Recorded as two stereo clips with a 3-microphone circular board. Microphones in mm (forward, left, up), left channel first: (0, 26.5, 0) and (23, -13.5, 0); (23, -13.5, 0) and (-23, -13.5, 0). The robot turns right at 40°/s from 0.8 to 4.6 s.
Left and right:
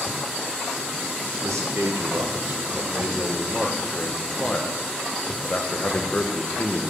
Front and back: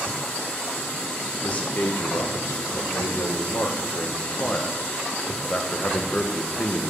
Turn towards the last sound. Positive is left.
turn(degrees=65)